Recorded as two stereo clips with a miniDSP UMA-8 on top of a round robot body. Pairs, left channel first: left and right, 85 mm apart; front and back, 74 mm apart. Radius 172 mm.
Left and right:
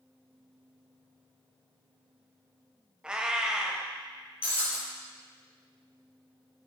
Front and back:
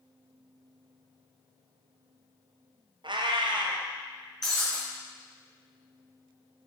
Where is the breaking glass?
85° left, 4 m.